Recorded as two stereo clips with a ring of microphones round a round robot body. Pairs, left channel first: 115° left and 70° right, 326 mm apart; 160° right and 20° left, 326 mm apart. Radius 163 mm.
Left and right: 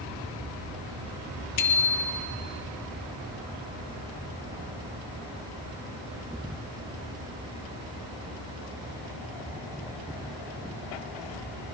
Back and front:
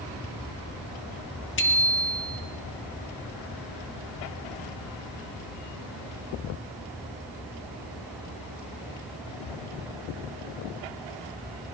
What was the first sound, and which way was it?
A bicycle bell, 145° left.